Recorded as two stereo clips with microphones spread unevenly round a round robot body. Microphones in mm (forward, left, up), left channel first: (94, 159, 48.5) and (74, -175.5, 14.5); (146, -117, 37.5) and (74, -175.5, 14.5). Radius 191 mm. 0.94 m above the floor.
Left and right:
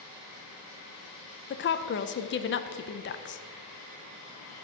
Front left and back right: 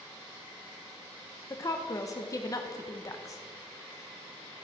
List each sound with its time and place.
1.5 s a woman speaking: 80° left, 0.6 m